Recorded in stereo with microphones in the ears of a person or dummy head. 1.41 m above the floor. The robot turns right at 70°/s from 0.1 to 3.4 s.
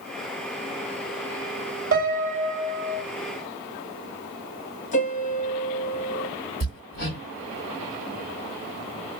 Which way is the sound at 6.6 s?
45° left (ahead or behind).